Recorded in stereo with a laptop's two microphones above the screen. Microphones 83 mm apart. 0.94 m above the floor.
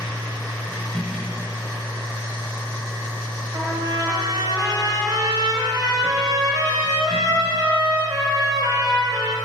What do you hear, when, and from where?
0.0 s a machine running: 5° left (ahead or behind), 2.5 m
3.5 s a trumpet: 45° right (ahead or behind), 1.0 m